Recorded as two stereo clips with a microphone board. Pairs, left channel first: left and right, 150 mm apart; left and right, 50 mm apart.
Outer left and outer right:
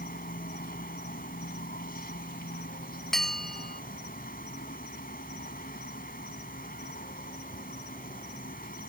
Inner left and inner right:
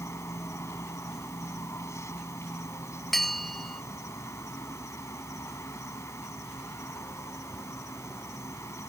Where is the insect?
75° left (ahead or behind).